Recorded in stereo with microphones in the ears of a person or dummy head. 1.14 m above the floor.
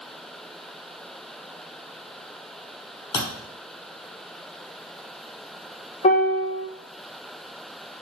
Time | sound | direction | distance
3.1 | a thud | 25° left (ahead or behind) | 1.1 m
6.0 | a piano | 35° left (ahead or behind) | 0.7 m